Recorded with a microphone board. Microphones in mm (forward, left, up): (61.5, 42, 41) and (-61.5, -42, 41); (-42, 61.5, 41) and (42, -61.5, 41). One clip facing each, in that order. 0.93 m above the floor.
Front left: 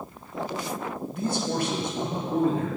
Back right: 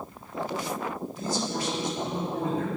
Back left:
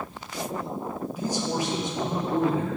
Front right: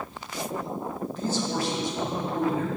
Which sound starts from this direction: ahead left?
A man speaking, at 1.1 s.